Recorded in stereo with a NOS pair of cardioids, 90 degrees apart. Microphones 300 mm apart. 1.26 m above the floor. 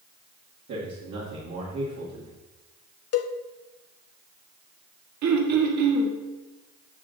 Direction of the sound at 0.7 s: 60° right.